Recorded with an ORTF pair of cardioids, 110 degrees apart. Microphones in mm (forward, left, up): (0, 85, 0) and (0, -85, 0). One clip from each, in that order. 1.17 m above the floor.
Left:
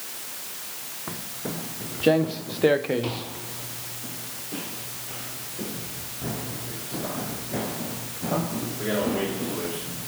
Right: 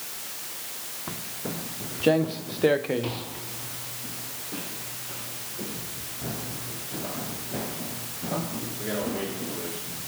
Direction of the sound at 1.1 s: 5° left.